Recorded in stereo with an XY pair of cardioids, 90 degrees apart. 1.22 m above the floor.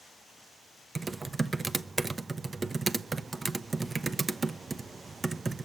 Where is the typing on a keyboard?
25° right, 0.6 m.